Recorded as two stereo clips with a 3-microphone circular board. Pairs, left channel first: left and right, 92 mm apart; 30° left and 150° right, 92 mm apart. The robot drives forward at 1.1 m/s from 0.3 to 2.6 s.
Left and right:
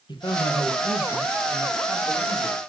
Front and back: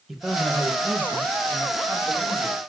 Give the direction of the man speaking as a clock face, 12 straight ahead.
8 o'clock.